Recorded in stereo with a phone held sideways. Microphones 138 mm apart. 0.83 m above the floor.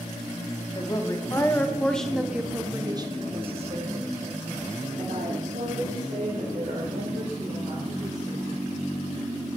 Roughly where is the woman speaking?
Left.